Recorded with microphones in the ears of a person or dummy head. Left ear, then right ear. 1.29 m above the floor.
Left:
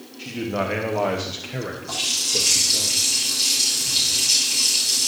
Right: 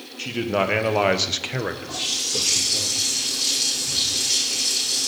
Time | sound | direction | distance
0.2 | a man speaking | 55° right (ahead or behind) | 1.2 m
1.9 | a running tap | 45° left (ahead or behind) | 5 m